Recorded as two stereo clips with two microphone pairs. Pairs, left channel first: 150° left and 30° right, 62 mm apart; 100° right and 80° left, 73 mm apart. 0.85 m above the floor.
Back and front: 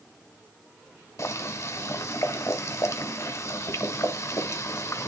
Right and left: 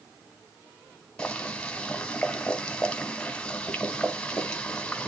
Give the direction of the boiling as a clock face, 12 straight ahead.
6 o'clock.